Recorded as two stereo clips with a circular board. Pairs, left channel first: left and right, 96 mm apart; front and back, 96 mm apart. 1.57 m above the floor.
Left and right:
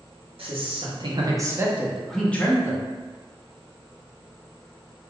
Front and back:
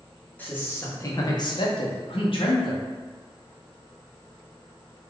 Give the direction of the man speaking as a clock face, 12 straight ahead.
2 o'clock.